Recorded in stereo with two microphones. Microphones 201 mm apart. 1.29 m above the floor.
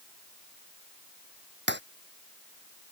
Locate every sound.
1.7 s breaking glass: 65° right (ahead or behind)